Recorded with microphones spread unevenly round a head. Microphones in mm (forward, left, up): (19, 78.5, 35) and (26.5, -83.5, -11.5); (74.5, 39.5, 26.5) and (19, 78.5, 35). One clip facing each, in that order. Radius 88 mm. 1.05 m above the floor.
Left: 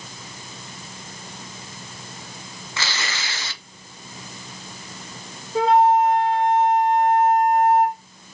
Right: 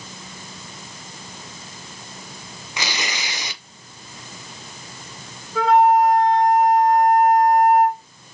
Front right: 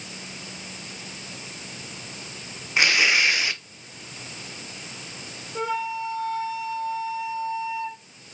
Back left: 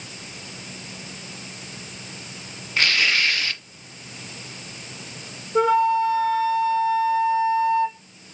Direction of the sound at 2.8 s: 80° right.